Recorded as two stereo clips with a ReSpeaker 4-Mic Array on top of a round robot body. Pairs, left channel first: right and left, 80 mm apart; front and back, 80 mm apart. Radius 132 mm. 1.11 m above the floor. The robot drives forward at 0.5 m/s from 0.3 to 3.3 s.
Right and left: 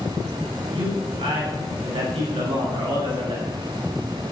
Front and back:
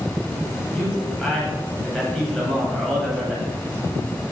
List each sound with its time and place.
0.7 s a man speaking: 85° left, 8.5 m; by 3.5 s 90° left, 8.5 m